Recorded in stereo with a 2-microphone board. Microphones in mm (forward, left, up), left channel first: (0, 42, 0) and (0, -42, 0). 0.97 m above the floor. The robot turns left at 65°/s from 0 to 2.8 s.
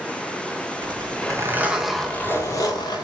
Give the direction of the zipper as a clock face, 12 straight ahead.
4 o'clock.